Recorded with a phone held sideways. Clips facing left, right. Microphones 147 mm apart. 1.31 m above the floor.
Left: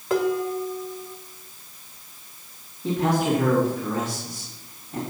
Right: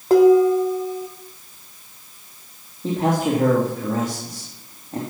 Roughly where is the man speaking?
Right.